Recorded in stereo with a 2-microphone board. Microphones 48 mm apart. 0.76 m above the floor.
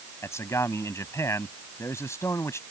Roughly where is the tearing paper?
No tearing paper in this recording.